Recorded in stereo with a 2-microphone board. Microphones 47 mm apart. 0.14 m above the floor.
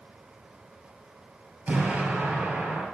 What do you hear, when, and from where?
1.7 s an explosion: 35° right (ahead or behind), 3 m